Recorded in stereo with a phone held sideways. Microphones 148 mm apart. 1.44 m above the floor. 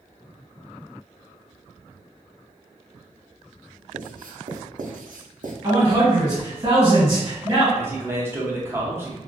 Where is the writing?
80° right, 0.5 m.